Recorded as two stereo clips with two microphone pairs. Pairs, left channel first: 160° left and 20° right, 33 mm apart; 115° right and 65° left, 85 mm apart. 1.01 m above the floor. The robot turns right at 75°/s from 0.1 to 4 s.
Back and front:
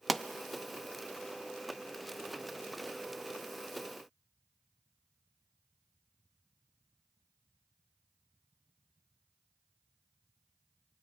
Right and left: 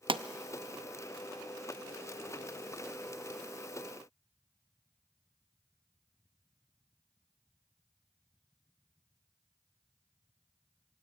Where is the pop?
70° left, 0.6 m; by 0.2 s 80° left, 0.6 m.